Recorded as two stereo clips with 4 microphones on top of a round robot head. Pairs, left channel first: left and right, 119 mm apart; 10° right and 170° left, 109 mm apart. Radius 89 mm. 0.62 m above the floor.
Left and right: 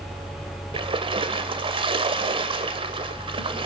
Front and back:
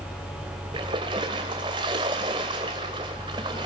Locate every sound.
0.7 s a splash: 135° right, 1.5 m